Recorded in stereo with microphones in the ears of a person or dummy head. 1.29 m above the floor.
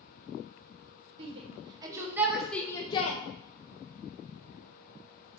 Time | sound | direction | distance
1.2 | a shout | 35° right (ahead or behind) | 1.6 m